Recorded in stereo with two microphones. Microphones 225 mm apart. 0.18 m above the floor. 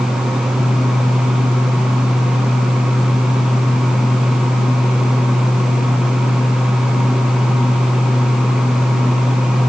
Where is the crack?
I don't hear a crack.